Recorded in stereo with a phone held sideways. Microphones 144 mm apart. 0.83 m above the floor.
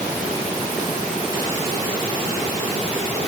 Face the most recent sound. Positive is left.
No sound to turn to.